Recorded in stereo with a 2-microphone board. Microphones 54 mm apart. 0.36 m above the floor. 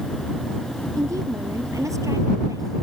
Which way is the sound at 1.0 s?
70° right (ahead or behind).